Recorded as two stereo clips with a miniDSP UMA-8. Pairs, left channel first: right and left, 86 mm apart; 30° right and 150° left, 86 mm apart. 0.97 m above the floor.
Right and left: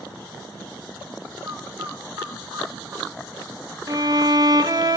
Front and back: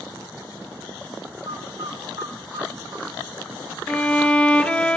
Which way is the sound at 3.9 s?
45° left.